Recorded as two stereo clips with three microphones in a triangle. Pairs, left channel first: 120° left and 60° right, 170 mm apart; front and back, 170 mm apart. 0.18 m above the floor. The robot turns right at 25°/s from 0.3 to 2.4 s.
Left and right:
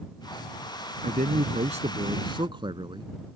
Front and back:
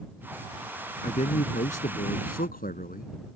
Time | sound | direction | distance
1.0 | a man speaking | 40° right | ?